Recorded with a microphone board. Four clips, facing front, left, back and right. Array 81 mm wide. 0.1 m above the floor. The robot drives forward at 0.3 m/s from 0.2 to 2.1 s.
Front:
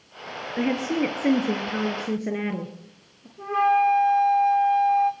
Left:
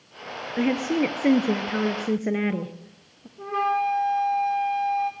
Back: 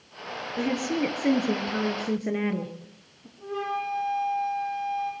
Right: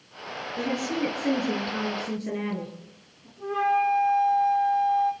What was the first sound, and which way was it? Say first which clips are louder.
A woman speaking: left 5 dB, front 3 dB; 60° left.